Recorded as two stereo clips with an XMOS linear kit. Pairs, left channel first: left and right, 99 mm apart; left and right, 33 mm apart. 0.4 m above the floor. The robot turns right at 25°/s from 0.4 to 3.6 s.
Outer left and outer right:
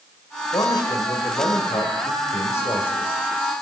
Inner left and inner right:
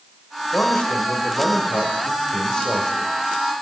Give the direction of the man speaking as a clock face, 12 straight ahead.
9 o'clock.